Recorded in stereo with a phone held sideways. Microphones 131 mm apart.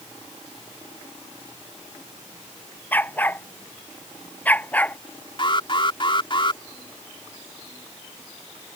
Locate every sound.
2.9 s a dog barking: 15° left (ahead or behind); by 5.0 s 10° left (ahead or behind)
5.4 s an alarm: 40° left (ahead or behind)